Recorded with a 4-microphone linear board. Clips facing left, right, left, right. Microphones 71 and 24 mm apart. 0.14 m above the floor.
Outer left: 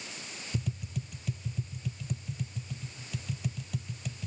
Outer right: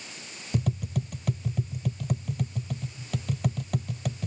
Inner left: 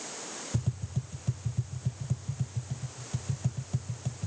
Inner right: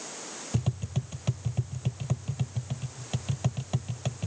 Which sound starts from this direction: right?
Tapping, at 0.5 s.